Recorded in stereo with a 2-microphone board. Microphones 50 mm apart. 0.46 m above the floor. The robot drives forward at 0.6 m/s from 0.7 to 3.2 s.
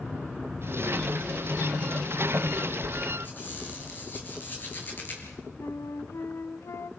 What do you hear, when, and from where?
3.2 s a squeak: 45° left (ahead or behind), 6.5 m
5.6 s a flute: 85° left, 0.7 m